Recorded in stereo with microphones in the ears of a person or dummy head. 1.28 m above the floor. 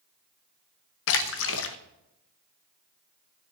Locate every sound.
1.1 s a splash: 70° left (ahead or behind), 0.7 m